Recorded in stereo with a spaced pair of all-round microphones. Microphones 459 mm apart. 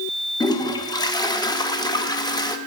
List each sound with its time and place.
0.4 s a toilet flushing: 10° left (ahead or behind), 0.6 m